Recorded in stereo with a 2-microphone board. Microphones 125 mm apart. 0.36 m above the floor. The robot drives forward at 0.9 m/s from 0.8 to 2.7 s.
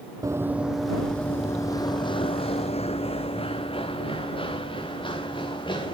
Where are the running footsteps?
30° right (ahead or behind), 0.6 m; by 5.9 s 40° left (ahead or behind), 3.5 m.